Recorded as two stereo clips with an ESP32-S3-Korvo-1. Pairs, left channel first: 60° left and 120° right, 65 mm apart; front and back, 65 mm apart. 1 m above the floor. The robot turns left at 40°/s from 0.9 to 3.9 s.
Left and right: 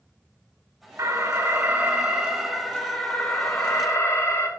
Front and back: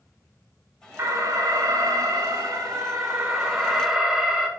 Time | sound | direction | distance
1.0 | an alarm | 145° right | 1.2 m